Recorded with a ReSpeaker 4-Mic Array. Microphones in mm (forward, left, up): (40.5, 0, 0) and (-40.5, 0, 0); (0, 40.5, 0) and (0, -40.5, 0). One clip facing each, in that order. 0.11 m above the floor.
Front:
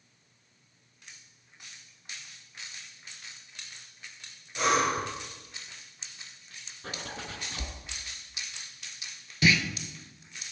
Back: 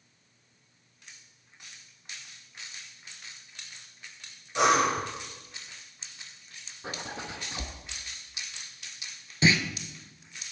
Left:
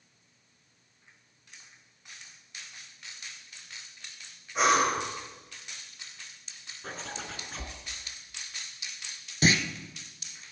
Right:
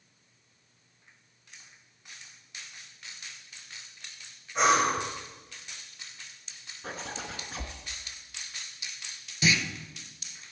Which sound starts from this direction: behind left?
A clunk, at 9.4 s.